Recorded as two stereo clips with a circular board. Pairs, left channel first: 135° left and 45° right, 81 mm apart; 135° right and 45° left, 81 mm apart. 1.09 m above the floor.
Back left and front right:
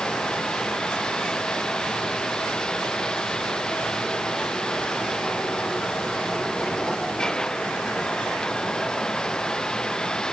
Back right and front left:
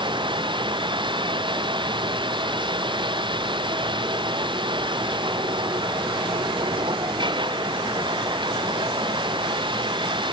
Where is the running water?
55° left.